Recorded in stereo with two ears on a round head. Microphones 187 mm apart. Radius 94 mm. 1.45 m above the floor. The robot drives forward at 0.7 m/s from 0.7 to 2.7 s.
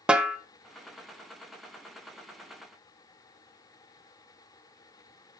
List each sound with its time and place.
0.1 s a snare drum: 5° right (ahead or behind), 0.7 m